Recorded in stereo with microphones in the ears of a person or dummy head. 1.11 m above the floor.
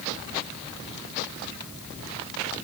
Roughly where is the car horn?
No car horn in this recording.